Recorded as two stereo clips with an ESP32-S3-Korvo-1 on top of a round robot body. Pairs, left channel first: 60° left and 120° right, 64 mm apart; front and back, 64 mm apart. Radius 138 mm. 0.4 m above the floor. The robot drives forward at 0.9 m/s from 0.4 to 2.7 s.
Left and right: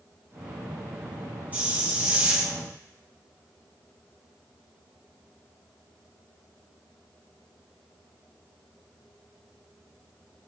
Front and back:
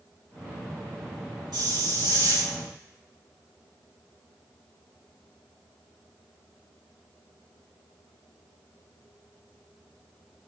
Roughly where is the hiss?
Behind.